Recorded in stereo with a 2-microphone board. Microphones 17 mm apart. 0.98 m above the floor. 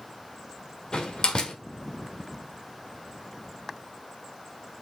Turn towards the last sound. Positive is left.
turn(degrees=60)  # may be behind; listen again after turning